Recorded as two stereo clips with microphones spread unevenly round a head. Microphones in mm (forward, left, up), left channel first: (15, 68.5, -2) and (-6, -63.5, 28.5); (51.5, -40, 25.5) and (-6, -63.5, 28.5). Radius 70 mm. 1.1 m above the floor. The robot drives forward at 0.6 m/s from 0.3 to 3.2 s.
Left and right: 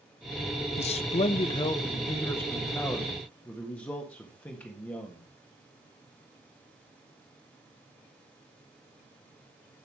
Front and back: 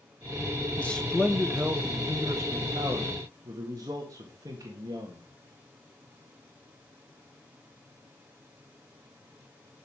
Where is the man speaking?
90° left, 0.7 m; by 5.3 s 155° left, 1.6 m.